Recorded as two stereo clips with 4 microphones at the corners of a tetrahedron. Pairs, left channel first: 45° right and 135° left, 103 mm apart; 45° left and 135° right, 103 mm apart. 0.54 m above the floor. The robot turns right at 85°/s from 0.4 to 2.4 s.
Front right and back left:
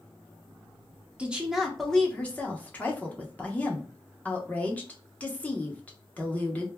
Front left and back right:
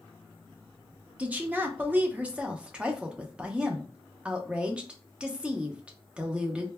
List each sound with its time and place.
1.2 s a woman speaking: straight behind, 0.6 m; by 6.7 s 80° right, 0.6 m